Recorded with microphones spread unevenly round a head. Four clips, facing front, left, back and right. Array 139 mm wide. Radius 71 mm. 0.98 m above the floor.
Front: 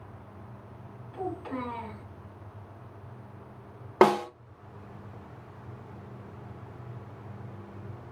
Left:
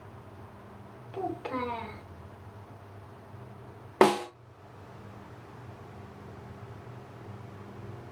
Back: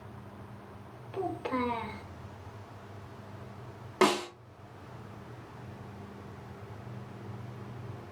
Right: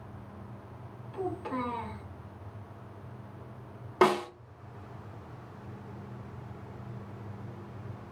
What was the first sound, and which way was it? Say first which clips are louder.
A child speaking: left 1 dB, back 2 dB; 150° left.